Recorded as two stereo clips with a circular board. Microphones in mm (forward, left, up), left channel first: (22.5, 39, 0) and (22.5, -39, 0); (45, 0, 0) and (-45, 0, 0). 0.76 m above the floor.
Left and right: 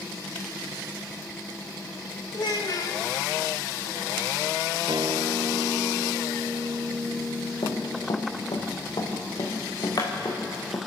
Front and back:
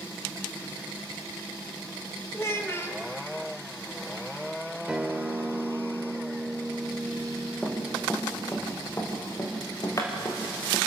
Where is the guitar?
100° right, 1.7 m.